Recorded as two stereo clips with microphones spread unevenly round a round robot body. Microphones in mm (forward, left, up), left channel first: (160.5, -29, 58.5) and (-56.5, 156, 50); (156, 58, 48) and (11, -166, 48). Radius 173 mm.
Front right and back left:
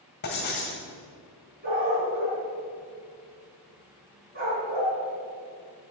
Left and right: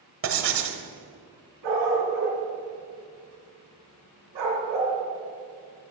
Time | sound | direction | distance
0.2 | writing | 105° right | 1.4 m
1.6 | a dog barking | 155° right | 3 m